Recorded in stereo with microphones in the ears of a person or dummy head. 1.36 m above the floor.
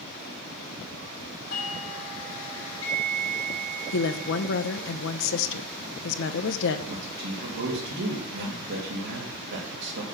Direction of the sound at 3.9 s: 75° left (ahead or behind).